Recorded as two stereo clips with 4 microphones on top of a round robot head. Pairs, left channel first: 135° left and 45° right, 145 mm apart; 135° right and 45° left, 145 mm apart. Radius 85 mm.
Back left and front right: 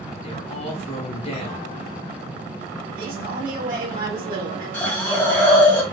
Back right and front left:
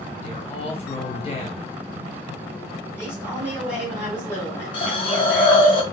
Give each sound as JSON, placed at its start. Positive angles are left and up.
{"t": 0.2, "sound": "a man speaking", "azimuth_deg": 180, "distance_m": 1.6}
{"t": 3.0, "sound": "a man speaking", "azimuth_deg": -40, "distance_m": 2.5}
{"t": 4.7, "sound": "a hiss", "azimuth_deg": -150, "distance_m": 1.3}